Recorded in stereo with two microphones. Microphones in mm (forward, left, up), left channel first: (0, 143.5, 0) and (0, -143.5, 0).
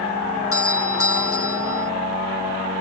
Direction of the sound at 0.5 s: 50° left (ahead or behind).